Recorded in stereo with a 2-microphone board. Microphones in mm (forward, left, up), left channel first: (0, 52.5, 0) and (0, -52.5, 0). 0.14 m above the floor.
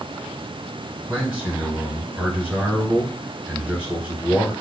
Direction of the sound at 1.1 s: 15° right (ahead or behind).